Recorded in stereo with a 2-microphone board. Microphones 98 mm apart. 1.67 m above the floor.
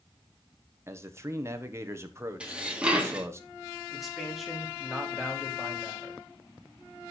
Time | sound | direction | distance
0.9 | a man speaking | 25° right (ahead or behind) | 1.3 m
2.4 | dishes clattering | 10° right (ahead or behind) | 1.7 m
3.9 | a man speaking | centre (ahead or behind) | 3 m